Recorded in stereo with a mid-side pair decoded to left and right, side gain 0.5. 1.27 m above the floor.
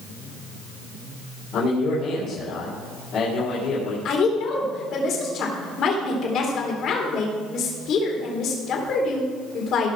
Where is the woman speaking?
60° left, 3.5 m.